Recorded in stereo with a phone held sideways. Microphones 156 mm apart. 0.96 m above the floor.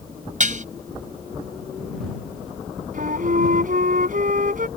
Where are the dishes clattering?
55° right (ahead or behind).